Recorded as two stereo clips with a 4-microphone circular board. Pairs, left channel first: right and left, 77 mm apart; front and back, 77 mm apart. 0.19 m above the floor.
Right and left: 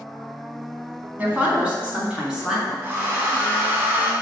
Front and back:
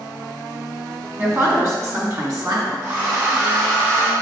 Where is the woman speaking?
145° left, 1.9 m; by 2.7 s 175° left, 3 m.